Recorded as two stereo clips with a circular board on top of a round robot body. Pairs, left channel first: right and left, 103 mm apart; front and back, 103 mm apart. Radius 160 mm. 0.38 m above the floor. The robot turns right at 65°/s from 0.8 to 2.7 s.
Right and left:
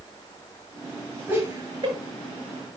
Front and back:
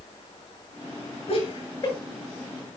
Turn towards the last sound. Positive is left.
turn(degrees=110)